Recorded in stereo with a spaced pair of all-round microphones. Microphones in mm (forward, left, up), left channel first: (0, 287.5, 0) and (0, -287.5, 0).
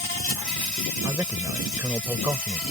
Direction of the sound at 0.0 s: 70° left (ahead or behind).